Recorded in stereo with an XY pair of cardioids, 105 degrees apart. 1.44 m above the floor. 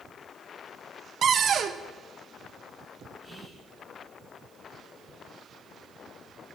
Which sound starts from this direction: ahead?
Whispering, at 3.2 s.